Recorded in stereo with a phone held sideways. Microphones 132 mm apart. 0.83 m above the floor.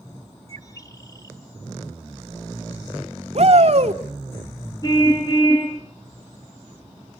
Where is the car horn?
30° left (ahead or behind), 9 m.